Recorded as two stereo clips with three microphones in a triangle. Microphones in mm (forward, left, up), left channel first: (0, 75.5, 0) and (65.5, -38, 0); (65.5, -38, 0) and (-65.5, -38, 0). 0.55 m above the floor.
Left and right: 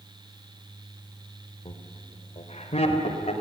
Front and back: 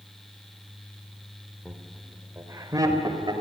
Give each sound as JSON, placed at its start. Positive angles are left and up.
{"t": 1.6, "sound": "laughter", "azimuth_deg": 95, "distance_m": 2.0}